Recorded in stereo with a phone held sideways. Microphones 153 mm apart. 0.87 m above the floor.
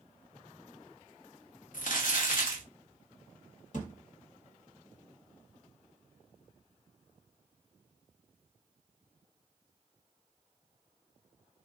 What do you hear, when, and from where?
1.7 s crumpling: 65° left (ahead or behind), 1.2 m
3.7 s a thud: 60° left (ahead or behind), 1.4 m